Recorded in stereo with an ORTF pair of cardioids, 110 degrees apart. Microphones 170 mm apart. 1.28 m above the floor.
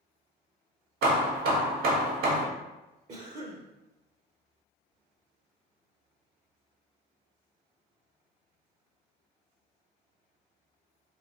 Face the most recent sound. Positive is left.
turn(degrees=-40)